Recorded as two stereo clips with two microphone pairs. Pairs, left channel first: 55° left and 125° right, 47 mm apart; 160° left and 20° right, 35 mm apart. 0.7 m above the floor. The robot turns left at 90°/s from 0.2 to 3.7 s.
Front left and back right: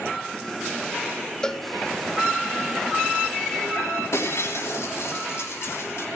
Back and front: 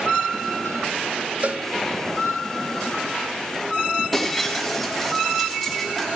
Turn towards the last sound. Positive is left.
turn(degrees=65)